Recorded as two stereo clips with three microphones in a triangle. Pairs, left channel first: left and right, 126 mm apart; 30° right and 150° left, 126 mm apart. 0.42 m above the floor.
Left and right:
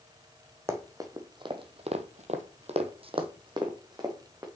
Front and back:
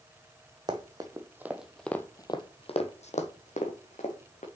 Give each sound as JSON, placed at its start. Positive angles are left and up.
{"t": 0.7, "sound": "running footsteps", "azimuth_deg": -155, "distance_m": 1.3}